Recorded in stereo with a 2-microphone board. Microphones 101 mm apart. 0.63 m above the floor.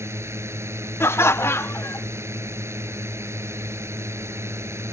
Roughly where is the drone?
Right.